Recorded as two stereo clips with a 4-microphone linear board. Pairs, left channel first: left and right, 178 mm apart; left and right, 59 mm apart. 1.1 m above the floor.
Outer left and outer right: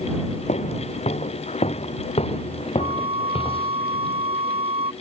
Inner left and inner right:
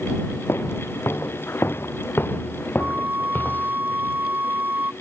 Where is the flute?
35° right (ahead or behind).